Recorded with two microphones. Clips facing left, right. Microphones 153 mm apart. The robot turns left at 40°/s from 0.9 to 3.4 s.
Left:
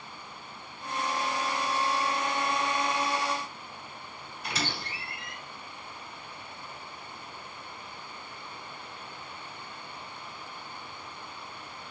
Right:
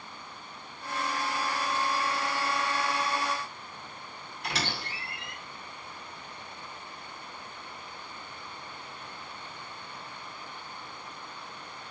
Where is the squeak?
70° right (ahead or behind), 1.5 m.